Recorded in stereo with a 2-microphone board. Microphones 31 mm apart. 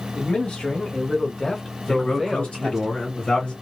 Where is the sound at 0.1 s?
35° left (ahead or behind), 1.1 m; by 2.9 s 15° right (ahead or behind), 1.1 m.